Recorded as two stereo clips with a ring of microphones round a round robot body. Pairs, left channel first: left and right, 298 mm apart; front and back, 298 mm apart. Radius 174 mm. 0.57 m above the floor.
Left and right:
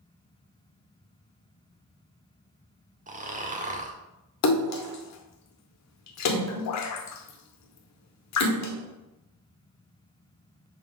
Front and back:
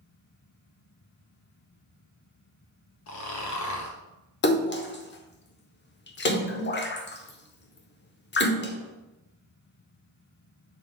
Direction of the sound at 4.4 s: 55° left.